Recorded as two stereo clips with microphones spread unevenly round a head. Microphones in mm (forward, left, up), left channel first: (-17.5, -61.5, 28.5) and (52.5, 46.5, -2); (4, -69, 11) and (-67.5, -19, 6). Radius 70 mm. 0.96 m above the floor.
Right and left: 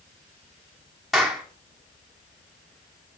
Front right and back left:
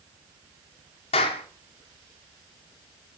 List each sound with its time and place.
1.1 s a clap: 30° right, 2.5 m